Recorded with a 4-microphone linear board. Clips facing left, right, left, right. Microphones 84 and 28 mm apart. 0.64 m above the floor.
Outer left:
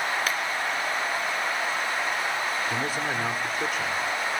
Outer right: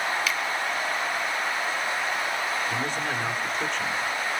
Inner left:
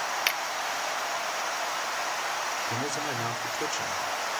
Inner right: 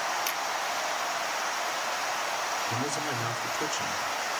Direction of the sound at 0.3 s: 45° left (ahead or behind).